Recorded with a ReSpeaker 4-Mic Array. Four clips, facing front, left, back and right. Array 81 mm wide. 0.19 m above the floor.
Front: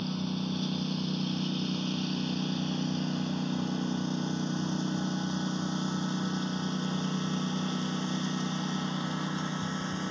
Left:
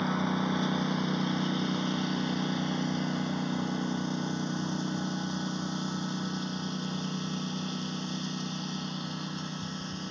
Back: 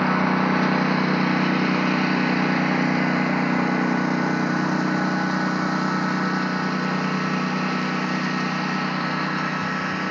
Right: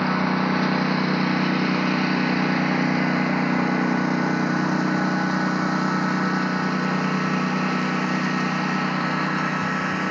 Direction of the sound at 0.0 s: 150° right.